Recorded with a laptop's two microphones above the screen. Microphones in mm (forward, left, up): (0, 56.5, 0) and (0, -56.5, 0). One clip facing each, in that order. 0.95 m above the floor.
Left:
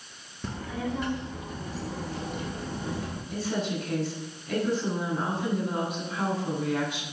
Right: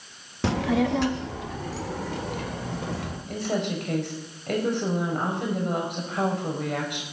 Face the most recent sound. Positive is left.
turn(degrees=-65)  # may be behind; listen again after turning